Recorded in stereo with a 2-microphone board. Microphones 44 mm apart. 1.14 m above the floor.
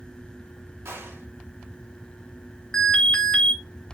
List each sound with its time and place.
0.8 s a gunshot: 85° right, 3 m
2.7 s an alarm: 20° left (ahead or behind), 1.5 m